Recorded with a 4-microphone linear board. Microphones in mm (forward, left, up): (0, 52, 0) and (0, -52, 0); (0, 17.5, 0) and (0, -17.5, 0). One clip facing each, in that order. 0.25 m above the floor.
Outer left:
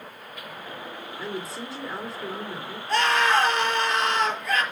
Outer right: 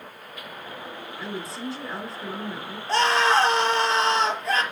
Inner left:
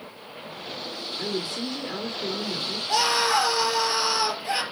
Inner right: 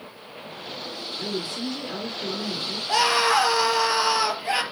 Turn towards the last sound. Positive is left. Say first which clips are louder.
# outer right 1 dB, inner right 2 dB
turn(degrees=-25)  # may be behind; listen again after turning